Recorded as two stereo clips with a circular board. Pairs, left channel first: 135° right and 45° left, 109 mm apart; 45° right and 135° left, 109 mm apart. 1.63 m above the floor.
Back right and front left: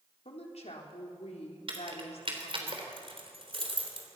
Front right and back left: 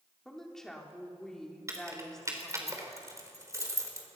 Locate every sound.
0.2 s a woman speaking: 130° right, 3.5 m
1.7 s keys jangling: 75° left, 3.5 m